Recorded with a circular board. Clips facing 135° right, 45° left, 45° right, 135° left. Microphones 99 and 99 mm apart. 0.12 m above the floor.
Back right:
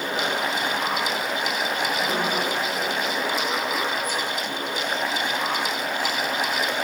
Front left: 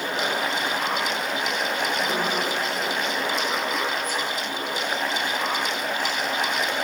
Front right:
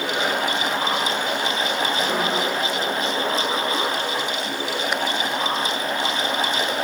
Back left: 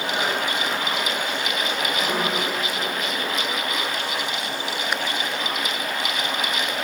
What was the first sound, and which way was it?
Only background noise.